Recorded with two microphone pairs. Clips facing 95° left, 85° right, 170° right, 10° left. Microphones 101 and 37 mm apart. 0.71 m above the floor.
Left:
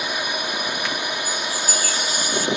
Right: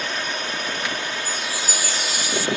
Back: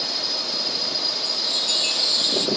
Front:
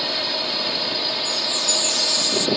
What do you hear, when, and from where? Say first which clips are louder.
0.0 s a drone: left 1 dB, front 4 dB; 25° left; by 2.6 s 35° left
1.2 s a chime: left 2 dB, front 2 dB; 130° left